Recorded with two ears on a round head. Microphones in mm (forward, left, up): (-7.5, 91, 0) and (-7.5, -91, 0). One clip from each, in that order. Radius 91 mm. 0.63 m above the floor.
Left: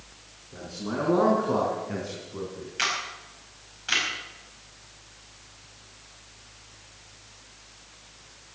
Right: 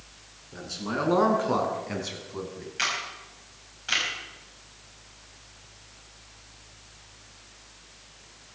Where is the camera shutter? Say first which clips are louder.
Left 1 dB; 5° left (ahead or behind), 5 m.